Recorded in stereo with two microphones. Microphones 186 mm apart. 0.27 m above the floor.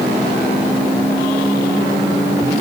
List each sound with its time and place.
Only background noise.